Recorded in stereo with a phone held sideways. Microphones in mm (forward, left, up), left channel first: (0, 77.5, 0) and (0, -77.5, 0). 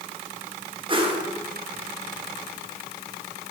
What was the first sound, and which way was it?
A whoosh, 35° right (ahead or behind).